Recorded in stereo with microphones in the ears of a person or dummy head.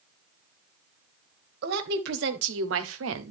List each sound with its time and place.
1.6 s a woman speaking: 65° right (ahead or behind), 1.8 m; by 3.3 s 80° right, 1.2 m